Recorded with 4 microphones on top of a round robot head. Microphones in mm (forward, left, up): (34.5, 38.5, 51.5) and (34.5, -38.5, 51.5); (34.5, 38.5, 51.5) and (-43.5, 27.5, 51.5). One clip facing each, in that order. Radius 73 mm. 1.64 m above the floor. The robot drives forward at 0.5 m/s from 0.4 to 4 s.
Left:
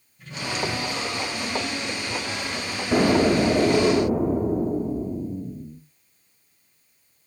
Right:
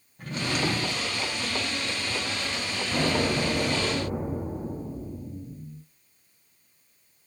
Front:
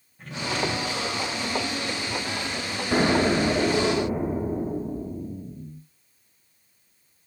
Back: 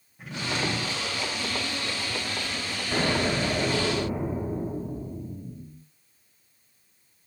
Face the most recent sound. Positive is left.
turn(degrees=90)